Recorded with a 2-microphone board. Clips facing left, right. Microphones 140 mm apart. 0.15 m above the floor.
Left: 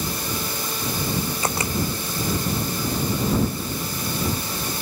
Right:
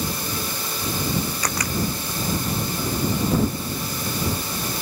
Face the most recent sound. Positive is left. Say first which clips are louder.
# left 2 dB
turn(degrees=25)  # may be behind; listen again after turning